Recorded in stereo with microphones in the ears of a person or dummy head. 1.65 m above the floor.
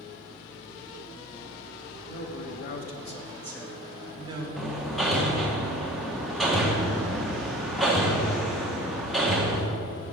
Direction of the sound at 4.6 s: 5° left (ahead or behind).